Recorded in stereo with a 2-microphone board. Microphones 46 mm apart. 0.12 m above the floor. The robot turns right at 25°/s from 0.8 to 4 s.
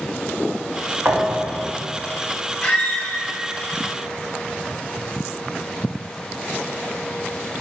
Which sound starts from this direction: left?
A squeak, at 2.6 s.